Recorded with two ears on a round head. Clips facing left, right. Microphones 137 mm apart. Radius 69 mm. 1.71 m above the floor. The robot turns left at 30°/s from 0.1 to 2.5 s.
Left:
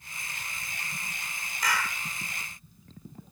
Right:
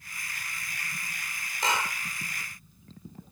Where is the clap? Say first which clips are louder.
Right 2 dB; 25° right (ahead or behind); by 2.0 s 15° right (ahead or behind).